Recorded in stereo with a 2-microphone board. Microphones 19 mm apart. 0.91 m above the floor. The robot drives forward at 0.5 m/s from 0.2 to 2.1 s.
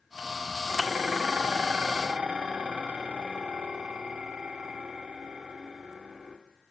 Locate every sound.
0.7 s dishes clattering: 75° right (ahead or behind), 1.6 m